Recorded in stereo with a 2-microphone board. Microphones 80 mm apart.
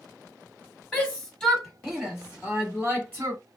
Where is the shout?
15° left (ahead or behind), 1.3 m; by 3.4 s 30° right (ahead or behind), 1.5 m.